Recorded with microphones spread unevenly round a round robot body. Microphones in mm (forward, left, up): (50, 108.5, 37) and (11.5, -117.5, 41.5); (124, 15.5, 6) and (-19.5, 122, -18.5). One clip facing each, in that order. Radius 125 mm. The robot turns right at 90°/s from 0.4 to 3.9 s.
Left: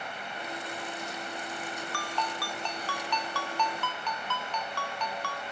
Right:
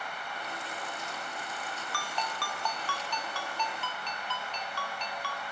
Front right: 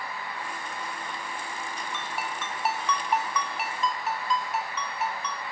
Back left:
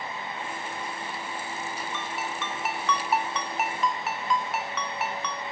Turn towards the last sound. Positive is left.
turn(degrees=125)